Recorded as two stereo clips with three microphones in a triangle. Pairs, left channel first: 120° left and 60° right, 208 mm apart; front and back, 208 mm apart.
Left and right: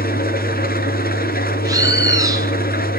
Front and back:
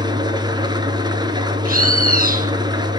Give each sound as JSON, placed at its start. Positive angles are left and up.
{"t": 0.0, "sound": "an engine running", "azimuth_deg": 120, "distance_m": 1.9}
{"t": 1.6, "sound": "a bird", "azimuth_deg": -135, "distance_m": 1.6}